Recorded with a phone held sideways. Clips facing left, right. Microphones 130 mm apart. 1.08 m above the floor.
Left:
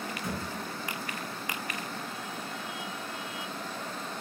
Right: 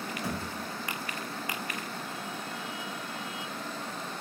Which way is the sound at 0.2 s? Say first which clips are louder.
Right 1 dB; 30° right (ahead or behind).